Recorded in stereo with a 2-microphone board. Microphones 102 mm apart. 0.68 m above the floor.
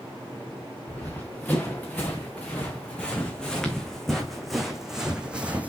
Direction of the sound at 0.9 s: 20° left (ahead or behind).